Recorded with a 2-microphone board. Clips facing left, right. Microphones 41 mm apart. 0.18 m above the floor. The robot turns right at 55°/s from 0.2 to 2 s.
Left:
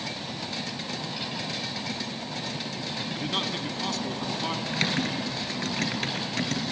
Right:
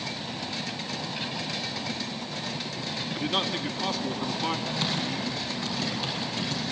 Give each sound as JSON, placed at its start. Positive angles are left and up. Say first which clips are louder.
{"t": 3.1, "sound": "a man speaking", "louder": "right 3 dB", "side_deg": -10, "distance_m": 1.3}
{"t": 4.7, "sound": "typing on a keyboard", "louder": "left 2 dB", "side_deg": 65, "distance_m": 3.0}